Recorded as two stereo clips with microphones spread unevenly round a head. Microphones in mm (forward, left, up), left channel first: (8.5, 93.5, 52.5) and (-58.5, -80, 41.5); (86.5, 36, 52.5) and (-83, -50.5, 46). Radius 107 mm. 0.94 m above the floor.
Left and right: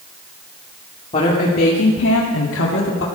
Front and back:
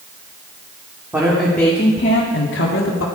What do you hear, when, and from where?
1.1 s a woman speaking: 125° left, 2 m; by 3.0 s 40° left, 2 m